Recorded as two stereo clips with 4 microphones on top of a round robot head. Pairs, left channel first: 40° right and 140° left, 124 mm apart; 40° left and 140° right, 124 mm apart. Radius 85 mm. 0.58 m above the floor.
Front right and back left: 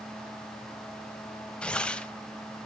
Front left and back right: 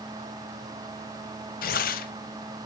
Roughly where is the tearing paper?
Ahead left.